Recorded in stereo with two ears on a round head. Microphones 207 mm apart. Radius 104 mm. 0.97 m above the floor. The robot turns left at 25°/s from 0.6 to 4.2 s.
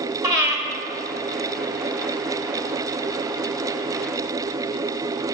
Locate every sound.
0.2 s breathing: 15° right (ahead or behind), 1.8 m